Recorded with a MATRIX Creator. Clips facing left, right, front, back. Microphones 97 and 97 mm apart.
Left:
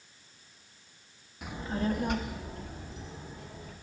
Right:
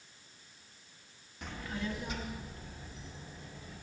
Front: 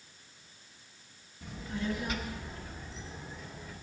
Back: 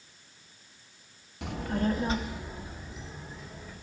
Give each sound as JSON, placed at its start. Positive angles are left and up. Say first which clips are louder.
{"t": 1.4, "sound": "a child speaking", "louder": "left 7 dB, back 7 dB", "azimuth_deg": 175, "distance_m": 0.7}